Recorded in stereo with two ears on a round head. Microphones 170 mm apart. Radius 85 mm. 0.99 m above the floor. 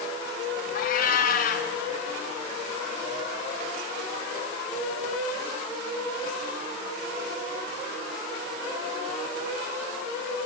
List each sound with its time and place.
0.8 s a cat meowing: 50° left (ahead or behind), 1.7 m